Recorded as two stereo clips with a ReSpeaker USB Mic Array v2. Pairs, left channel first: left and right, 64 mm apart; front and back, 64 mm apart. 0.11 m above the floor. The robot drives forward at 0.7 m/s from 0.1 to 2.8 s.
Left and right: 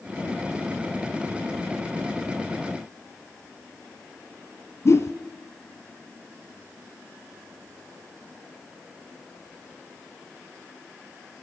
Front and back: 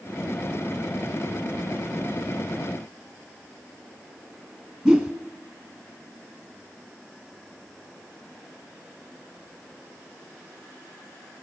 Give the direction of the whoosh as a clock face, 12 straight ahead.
8 o'clock.